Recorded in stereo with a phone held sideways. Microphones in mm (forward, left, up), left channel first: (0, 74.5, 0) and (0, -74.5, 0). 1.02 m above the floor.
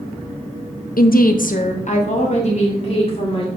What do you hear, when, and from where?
1.0 s a woman speaking: 70° left (ahead or behind), 0.5 m; by 3.5 s 40° left (ahead or behind), 2.5 m